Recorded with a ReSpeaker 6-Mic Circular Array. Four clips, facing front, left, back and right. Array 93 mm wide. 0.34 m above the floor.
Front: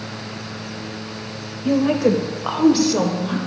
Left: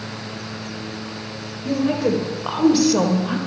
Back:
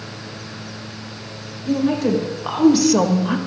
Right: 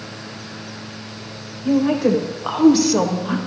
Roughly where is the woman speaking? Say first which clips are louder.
Right 3 dB, front 2 dB; ahead.